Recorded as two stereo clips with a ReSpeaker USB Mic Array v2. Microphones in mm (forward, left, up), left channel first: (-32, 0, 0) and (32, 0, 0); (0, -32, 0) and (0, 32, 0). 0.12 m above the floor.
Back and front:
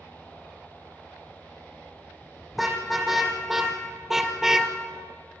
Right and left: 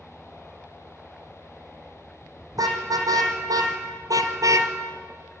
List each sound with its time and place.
2.5 s a car horn: 90° left, 3.5 m; by 4.7 s 80° left, 1.2 m